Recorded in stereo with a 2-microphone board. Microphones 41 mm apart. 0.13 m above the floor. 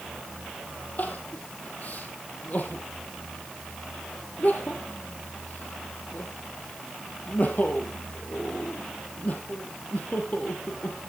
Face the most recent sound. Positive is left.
turn(degrees=40)  # may be behind; listen again after turning